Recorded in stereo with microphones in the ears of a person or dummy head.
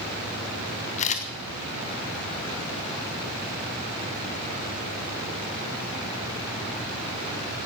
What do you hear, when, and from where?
1.0 s a camera shutter: 35° left (ahead or behind), 1.3 m